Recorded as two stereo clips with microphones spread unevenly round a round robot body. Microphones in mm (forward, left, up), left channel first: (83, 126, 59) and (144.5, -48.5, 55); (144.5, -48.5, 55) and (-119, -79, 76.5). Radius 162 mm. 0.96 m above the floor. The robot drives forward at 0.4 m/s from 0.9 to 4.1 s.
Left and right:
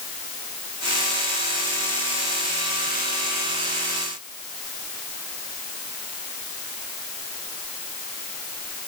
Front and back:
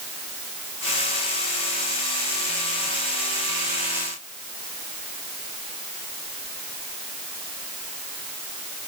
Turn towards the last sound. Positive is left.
No sound to turn to.